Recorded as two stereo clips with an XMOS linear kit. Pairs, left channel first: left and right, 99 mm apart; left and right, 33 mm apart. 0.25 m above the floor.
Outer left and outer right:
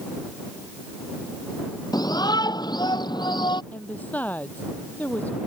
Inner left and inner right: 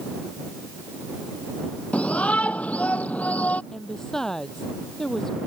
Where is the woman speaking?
15° left (ahead or behind).